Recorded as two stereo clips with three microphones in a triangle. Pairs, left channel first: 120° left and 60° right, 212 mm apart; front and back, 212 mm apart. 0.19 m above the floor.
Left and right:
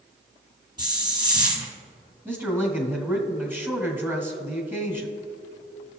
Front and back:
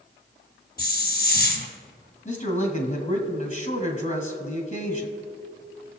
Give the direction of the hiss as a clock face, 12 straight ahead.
12 o'clock.